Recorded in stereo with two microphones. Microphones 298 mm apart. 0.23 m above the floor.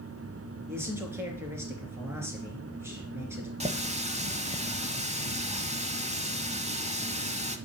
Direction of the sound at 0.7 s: 10° right (ahead or behind).